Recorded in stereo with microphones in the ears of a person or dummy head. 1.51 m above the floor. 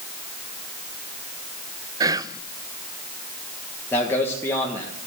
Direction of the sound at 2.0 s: 20° right (ahead or behind).